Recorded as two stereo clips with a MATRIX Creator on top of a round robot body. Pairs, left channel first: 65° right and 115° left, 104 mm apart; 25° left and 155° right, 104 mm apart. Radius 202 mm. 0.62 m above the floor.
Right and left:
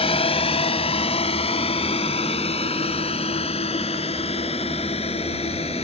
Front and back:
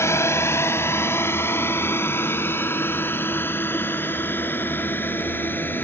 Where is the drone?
40° right; by 5.8 s 50° right.